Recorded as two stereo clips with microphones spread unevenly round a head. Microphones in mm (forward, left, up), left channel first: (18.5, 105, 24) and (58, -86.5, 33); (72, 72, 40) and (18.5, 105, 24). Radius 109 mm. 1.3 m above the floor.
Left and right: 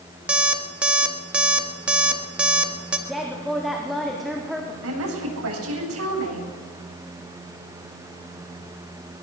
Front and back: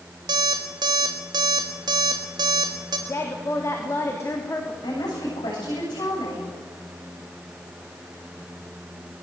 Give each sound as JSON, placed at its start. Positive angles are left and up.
{"t": 0.3, "sound": "an alarm clock", "azimuth_deg": -165, "distance_m": 1.2}
{"t": 3.1, "sound": "a woman speaking", "azimuth_deg": 10, "distance_m": 4.0}
{"t": 4.8, "sound": "a woman speaking", "azimuth_deg": -65, "distance_m": 8.0}